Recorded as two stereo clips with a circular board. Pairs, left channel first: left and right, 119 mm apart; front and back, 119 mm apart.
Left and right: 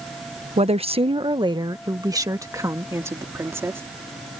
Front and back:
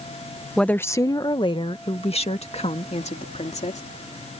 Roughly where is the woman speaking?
Right.